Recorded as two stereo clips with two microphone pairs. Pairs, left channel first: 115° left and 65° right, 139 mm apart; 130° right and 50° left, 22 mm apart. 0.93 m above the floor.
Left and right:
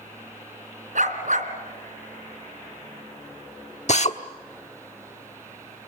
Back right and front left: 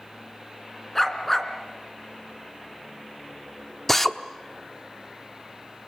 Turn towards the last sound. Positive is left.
turn(degrees=145)